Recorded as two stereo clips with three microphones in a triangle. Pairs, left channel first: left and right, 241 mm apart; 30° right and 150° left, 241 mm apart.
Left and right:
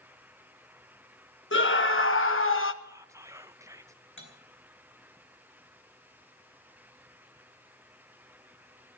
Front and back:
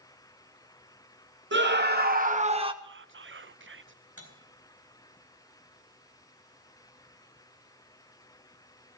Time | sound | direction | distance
1.5 | a scream | 115° left | 1.5 m
2.8 | whispering | 165° right | 0.5 m
4.2 | cutlery clinking | 125° left | 4 m